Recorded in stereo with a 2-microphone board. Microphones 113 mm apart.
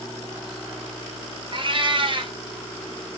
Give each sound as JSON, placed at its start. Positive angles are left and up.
{"t": 1.5, "sound": "a cat meowing", "side_deg": -50, "distance_m": 0.7}